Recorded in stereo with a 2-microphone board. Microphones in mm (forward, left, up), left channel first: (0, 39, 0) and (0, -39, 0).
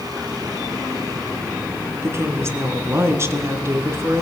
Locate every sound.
2.0 s a woman speaking: 35° right (ahead or behind), 3 m